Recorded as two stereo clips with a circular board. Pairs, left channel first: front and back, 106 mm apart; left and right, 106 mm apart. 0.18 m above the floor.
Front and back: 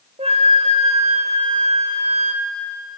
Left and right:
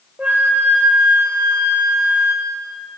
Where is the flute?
170° right, 2.5 m.